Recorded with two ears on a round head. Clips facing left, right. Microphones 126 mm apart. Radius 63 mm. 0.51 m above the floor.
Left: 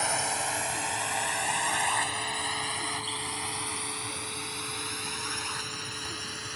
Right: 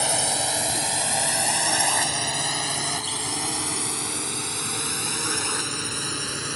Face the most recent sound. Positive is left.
turn(degrees=-65)  # may be behind; listen again after turning